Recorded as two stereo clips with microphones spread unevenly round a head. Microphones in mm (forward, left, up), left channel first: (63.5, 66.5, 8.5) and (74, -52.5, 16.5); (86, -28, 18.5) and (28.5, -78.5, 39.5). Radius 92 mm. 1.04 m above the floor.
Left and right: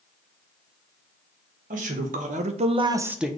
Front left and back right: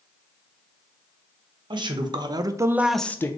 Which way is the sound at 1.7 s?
115° right.